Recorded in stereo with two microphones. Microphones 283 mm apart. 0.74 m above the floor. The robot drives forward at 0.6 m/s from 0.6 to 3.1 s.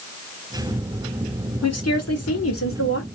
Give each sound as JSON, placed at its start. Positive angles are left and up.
{"t": 1.6, "sound": "a woman speaking", "side_deg": 65, "distance_m": 1.7}